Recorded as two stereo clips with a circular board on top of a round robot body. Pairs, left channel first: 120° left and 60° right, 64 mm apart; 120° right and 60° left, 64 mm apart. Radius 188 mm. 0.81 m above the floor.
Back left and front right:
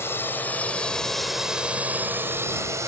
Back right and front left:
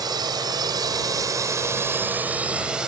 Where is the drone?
65° left; by 2.9 s 20° right.